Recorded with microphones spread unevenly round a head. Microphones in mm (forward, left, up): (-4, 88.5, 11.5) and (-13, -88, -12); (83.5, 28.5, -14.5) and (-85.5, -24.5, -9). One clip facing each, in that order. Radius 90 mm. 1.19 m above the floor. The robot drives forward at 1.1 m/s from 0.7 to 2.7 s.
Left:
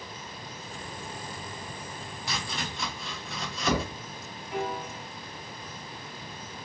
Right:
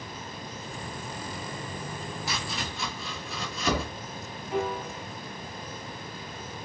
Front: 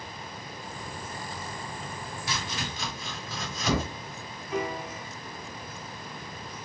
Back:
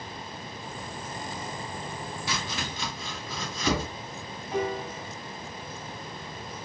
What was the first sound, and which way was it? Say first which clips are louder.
Chopping: left 3 dB, even; straight behind.